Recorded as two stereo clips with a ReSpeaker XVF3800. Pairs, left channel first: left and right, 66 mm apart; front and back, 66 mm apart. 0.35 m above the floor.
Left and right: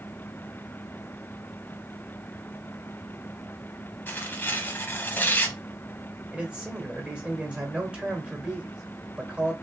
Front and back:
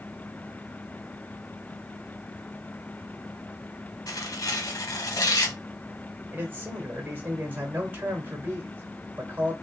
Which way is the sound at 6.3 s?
150° right.